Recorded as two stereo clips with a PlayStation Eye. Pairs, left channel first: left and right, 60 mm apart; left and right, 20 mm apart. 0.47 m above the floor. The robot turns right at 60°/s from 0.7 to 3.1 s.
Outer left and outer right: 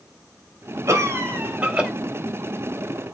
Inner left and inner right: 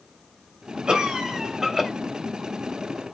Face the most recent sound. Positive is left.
turn(degrees=65)